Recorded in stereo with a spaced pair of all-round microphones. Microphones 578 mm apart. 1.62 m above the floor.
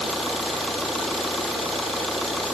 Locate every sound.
0.0 s an engine running: centre (ahead or behind)